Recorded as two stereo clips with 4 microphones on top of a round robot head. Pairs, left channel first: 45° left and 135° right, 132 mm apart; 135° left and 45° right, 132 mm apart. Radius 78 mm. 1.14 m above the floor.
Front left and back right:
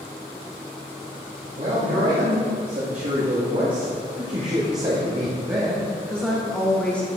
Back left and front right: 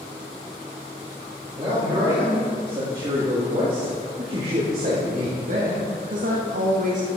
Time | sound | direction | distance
1.6 | a man speaking | 110° right | 3 m